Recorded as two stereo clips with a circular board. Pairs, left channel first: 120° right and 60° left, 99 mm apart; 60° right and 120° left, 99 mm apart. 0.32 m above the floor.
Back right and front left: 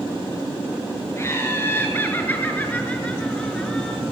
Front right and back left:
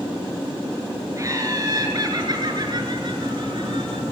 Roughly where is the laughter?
Behind.